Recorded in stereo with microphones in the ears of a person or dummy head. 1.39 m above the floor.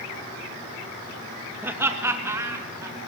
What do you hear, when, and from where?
1.6 s laughter: 10° right (ahead or behind), 1.8 m; by 3.0 s 15° right (ahead or behind), 4 m